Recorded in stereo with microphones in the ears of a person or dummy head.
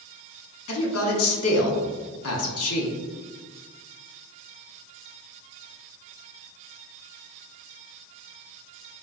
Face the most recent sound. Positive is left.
turn(degrees=80)